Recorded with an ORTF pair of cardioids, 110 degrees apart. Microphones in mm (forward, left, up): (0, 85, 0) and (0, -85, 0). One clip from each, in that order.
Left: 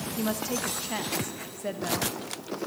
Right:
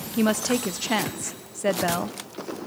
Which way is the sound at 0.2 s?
50° right.